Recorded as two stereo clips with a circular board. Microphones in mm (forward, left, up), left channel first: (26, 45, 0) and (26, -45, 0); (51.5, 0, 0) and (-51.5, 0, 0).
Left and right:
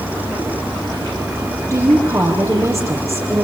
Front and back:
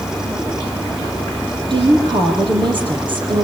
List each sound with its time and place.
1.7 s a woman speaking: 145° right, 5 m